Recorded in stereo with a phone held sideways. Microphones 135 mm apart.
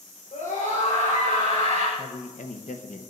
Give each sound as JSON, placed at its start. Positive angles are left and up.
{"t": 0.3, "sound": "a scream", "side_deg": 80, "distance_m": 4.5}
{"t": 2.0, "sound": "a man speaking", "side_deg": 70, "distance_m": 1.1}